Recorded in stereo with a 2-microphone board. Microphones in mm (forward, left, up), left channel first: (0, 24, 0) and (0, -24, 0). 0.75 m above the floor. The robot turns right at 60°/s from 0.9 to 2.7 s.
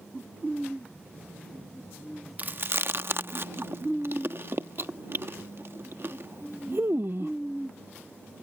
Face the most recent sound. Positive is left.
turn(degrees=-55)  # may be behind; listen again after turning